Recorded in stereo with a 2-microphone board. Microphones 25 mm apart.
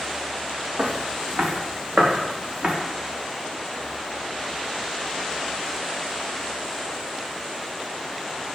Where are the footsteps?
60° right (ahead or behind), 5 m.